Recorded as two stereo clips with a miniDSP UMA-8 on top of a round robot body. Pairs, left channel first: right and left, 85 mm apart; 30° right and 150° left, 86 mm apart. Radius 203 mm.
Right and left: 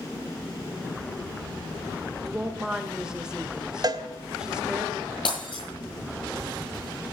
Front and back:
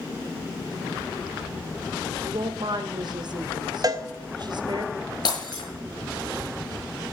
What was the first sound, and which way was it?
A woman speaking, 170° left.